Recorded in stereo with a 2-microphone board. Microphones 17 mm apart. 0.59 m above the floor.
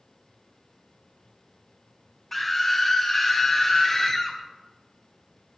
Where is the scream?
25° left (ahead or behind), 1.1 m; by 4.4 s 40° left (ahead or behind), 2 m.